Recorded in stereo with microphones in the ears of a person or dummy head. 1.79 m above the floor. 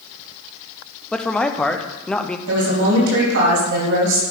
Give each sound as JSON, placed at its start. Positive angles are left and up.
{"t": 1.1, "sound": "a man speaking", "side_deg": 5, "distance_m": 0.7}
{"t": 2.5, "sound": "a woman speaking", "side_deg": -70, "distance_m": 3.5}